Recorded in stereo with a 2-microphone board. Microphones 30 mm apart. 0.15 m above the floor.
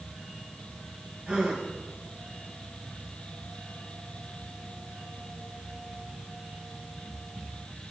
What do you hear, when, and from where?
1.3 s a gasp: 40° right (ahead or behind), 8 m